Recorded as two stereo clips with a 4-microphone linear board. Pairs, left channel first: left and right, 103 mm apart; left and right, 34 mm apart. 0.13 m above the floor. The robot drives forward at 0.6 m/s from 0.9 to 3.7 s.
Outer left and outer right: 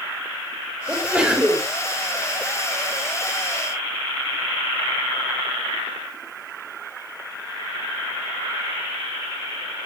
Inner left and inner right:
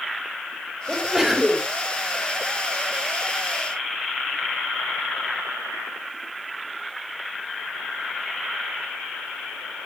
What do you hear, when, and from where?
0.9 s a sneeze: 10° right (ahead or behind), 4 m